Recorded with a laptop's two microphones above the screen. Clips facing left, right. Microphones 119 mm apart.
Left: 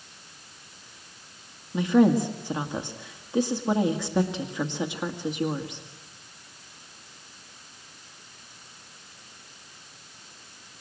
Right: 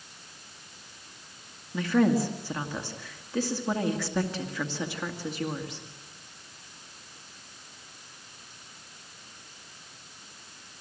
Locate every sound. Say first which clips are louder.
1.7 s a woman speaking: left 4 dB; 20° left (ahead or behind), 1.9 m